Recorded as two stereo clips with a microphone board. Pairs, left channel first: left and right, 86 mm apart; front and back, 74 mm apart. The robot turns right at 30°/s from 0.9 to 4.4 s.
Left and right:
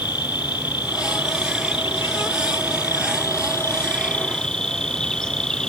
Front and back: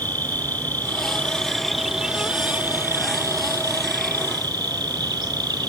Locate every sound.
0.0 s an insect: 65° left; by 5.7 s 170° left